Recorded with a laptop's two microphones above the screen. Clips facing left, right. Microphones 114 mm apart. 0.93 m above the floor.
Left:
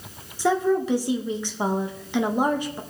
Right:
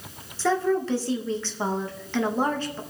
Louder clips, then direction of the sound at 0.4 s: Left 2 dB; 15° left (ahead or behind).